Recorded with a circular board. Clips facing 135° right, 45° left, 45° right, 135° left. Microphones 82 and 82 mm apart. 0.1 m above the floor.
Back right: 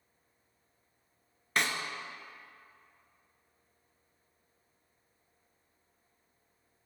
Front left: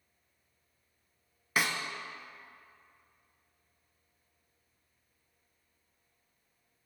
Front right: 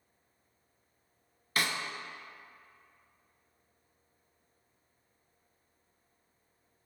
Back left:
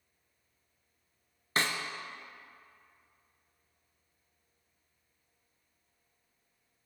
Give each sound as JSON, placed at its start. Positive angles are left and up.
{"t": 1.6, "sound": "a snare drum", "azimuth_deg": 125, "distance_m": 0.5}